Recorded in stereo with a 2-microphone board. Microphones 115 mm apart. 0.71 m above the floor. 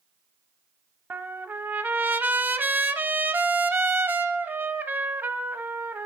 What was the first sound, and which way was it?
A trumpet, 15° right (ahead or behind).